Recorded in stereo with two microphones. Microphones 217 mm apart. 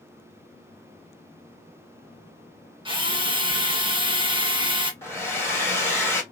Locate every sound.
2.9 s a drill: 25° right (ahead or behind), 1.0 m
5.0 s a hair dryer: 10° left (ahead or behind), 1.4 m